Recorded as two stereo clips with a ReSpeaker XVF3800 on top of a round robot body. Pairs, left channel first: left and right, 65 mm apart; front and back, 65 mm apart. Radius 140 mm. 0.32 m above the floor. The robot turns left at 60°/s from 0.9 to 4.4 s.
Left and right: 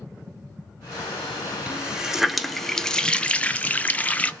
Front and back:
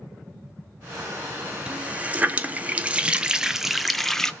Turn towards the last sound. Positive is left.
turn(degrees=60)